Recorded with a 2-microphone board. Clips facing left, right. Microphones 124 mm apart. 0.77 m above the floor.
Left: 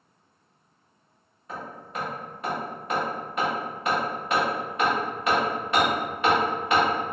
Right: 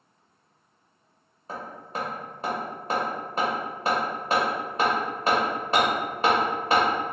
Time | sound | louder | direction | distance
1.5 | hammering | right 1 dB | 30° right (ahead or behind) | 0.9 m